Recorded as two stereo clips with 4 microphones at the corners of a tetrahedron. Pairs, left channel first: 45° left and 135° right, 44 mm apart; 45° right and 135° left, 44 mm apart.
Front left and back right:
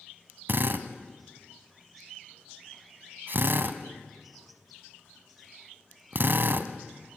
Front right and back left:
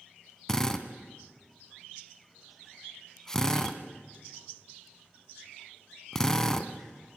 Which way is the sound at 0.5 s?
120° right.